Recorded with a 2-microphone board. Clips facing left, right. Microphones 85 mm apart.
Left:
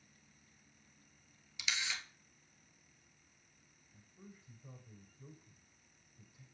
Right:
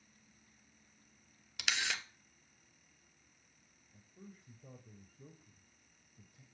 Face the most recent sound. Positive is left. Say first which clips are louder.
# right 2 dB
turn(degrees=-55)  # may be behind; listen again after turning